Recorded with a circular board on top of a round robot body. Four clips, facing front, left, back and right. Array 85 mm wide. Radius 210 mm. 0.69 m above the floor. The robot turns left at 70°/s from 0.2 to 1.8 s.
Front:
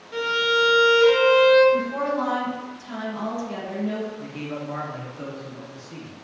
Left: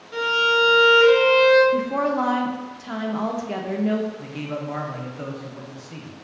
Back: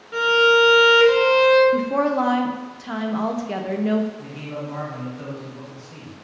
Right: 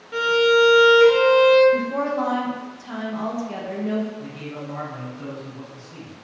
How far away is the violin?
About 1.0 m.